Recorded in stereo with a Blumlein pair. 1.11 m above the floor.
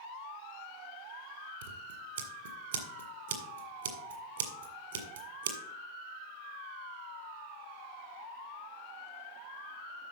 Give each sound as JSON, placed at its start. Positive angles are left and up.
{"t": 1.6, "sound": "scissors", "azimuth_deg": -60, "distance_m": 1.9}